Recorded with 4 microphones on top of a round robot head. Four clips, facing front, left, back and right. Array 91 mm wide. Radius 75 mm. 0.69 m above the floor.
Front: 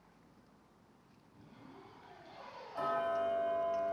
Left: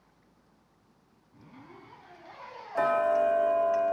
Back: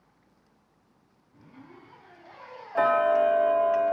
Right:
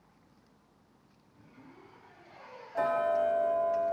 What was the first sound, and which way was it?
A zipper, 115° left.